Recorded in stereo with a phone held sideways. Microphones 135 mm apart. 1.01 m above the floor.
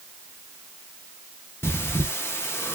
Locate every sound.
1.6 s breathing: 20° left (ahead or behind), 0.5 m